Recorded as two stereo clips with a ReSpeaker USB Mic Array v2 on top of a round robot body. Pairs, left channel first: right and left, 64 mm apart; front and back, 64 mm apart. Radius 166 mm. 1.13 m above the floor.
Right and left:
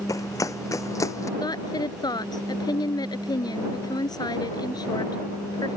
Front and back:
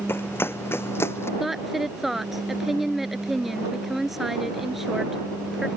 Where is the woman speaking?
95° right.